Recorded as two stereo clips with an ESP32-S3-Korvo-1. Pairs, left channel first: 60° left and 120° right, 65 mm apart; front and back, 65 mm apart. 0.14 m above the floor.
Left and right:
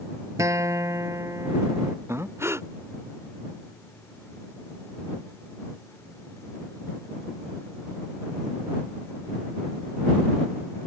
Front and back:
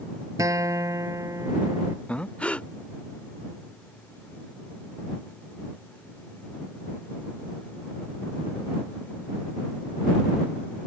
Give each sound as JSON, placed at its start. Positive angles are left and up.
{"t": 0.4, "sound": "a guitar", "azimuth_deg": -150}
{"t": 2.1, "sound": "breathing", "azimuth_deg": -70}